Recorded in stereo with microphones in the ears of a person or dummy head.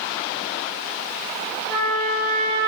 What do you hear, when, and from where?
1.7 s a trumpet: 60° right (ahead or behind), 0.8 m